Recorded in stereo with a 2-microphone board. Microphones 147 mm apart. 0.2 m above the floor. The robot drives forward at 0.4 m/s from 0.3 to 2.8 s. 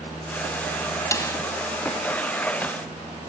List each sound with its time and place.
1.1 s a snare drum: 20° left (ahead or behind), 1.2 m